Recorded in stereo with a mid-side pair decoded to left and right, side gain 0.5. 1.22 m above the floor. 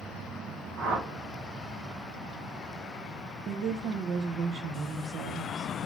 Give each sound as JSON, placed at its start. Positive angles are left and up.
{"t": 0.8, "sound": "a whoosh", "azimuth_deg": -65, "distance_m": 1.1}
{"t": 3.5, "sound": "a woman speaking", "azimuth_deg": -65, "distance_m": 0.6}